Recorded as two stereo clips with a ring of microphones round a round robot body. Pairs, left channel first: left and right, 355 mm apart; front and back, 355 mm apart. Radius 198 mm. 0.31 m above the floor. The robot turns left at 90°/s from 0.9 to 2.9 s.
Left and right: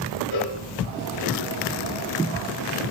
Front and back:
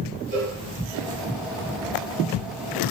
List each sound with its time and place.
0.3 s a cowbell: 110° left, 3 m